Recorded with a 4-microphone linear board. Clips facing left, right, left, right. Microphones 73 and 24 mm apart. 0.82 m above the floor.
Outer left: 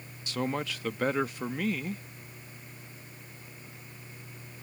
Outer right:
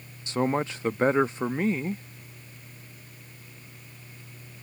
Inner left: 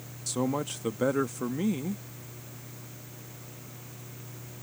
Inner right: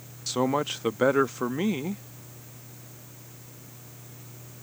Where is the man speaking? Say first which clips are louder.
Outer right 6 dB, inner right 4 dB; 25° right (ahead or behind).